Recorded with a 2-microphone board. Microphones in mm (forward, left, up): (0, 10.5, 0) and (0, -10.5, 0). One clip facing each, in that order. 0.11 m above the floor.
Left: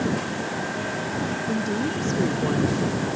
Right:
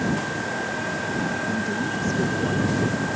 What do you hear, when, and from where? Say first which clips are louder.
1.5 s a woman speaking: even; 15° left (ahead or behind)